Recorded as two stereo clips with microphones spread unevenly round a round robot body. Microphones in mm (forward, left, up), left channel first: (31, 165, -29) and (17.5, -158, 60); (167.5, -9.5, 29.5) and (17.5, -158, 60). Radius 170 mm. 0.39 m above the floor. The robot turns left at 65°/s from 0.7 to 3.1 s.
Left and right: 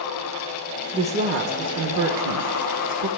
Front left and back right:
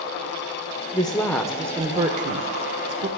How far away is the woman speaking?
About 1.2 m.